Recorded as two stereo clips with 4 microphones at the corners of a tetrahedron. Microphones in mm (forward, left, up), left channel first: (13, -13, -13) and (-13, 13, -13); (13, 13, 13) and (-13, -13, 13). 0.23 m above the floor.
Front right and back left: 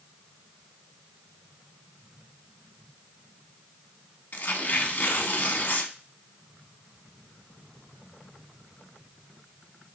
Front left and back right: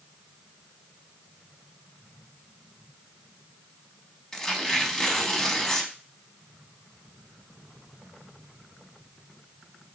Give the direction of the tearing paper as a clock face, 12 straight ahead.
1 o'clock.